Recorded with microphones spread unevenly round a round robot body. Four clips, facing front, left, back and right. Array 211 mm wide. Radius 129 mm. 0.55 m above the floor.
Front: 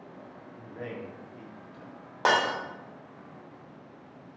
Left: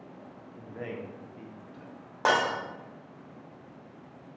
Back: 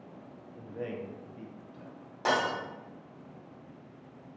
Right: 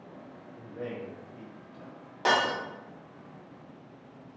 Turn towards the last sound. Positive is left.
turn(degrees=25)